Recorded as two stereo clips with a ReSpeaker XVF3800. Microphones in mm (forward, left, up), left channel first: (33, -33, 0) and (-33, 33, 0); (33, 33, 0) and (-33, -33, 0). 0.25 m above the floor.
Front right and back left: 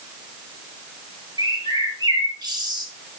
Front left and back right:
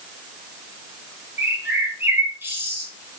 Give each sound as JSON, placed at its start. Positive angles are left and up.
{"t": 1.4, "sound": "a bird", "azimuth_deg": 165, "distance_m": 2.5}